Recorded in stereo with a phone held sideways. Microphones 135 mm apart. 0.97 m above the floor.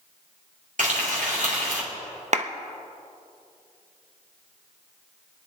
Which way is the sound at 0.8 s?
70° right (ahead or behind).